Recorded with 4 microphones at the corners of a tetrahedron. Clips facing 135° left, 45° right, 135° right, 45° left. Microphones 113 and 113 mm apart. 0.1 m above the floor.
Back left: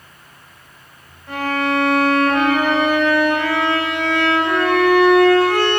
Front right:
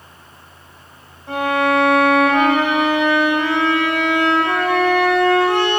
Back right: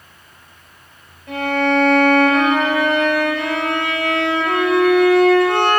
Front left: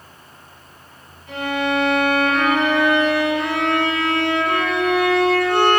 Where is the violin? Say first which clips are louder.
Front right 3 dB, back right 4 dB; 110° right, 3.5 m.